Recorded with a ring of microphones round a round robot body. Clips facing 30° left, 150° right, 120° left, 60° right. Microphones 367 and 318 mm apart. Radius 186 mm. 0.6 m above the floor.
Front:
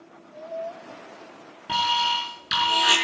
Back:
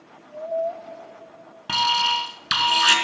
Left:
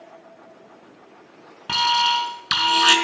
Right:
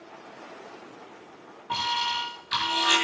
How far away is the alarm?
About 5 m.